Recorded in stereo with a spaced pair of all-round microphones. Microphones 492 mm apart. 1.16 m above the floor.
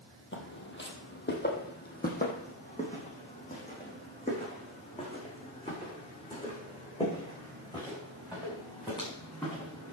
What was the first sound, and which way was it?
Footsteps, 25° left (ahead or behind).